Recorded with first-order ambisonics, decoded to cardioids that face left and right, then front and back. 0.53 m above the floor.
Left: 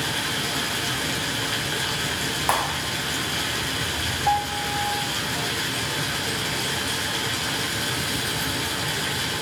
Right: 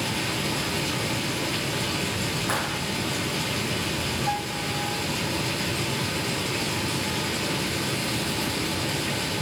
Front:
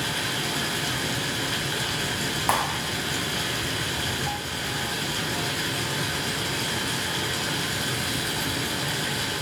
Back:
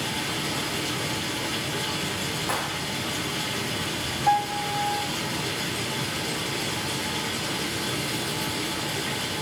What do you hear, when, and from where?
0.0 s running water: 65° left, 4 m
2.5 s a clap: 55° left, 3 m
4.3 s a piano: 135° left, 0.8 m